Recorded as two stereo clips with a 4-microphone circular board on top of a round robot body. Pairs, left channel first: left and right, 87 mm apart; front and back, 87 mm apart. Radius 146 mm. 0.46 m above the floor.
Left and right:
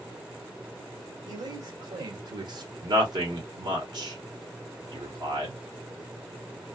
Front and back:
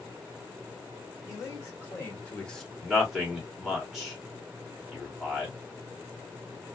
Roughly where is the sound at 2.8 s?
Right.